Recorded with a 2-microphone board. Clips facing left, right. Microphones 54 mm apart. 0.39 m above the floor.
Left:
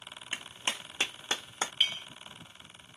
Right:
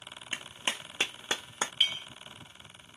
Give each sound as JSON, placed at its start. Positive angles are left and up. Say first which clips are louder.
{"t": 0.3, "sound": "a clap", "louder": "right 1 dB", "side_deg": -15, "distance_m": 0.8}
{"t": 1.8, "sound": "a clink", "louder": "right 1 dB", "side_deg": -5, "distance_m": 1.0}